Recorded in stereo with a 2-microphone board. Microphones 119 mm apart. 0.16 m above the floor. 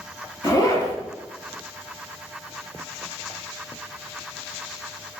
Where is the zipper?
30° left (ahead or behind), 1.1 m.